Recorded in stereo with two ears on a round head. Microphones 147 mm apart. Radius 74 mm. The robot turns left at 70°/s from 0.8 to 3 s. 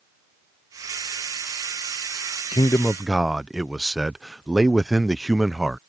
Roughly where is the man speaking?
Ahead left.